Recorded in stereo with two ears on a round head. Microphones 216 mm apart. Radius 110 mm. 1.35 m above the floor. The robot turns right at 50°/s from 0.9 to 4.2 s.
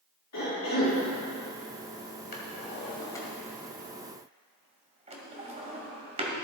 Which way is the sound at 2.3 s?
45° left (ahead or behind).